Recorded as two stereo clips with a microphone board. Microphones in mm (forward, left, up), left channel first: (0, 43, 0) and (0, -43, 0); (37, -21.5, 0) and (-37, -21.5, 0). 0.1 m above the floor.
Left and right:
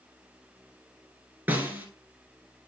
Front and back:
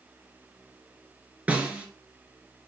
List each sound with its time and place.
1.5 s a snare drum: 130° right, 1.7 m